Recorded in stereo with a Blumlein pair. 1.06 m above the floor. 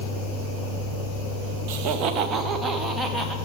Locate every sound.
1.7 s laughter: 45° right, 1.1 m; by 3.4 s 5° left, 1.5 m